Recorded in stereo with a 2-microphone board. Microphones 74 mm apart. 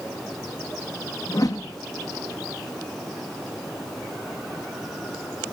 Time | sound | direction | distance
1.3 | a whoosh | 55° left (ahead or behind) | 1.7 m